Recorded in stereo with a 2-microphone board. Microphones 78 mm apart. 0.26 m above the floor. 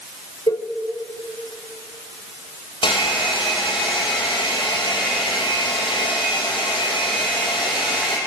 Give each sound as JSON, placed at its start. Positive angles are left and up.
{"t": 0.5, "sound": "a cowbell", "side_deg": 55, "distance_m": 1.2}
{"t": 2.8, "sound": "a hair dryer", "side_deg": 85, "distance_m": 4.0}